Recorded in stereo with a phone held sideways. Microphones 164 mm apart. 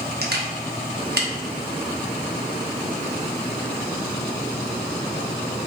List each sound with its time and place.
0.2 s a camera shutter: 70° right (ahead or behind), 0.5 m